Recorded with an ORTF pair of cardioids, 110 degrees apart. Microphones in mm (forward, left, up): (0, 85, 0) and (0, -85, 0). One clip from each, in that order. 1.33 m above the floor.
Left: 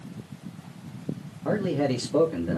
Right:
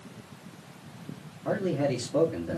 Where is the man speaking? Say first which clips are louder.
Left 2 dB; 35° left, 2.0 m.